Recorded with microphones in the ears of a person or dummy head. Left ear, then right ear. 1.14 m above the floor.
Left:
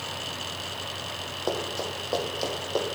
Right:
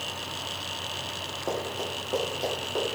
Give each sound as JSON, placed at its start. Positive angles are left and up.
{"t": 1.5, "sound": "running footsteps", "side_deg": 30, "distance_m": 2.5}